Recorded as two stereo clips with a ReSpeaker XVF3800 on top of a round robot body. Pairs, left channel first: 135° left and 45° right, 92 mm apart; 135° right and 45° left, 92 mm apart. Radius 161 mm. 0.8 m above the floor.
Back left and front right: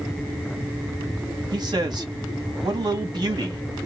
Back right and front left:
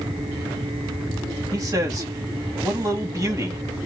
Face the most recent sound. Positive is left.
turn(degrees=-5)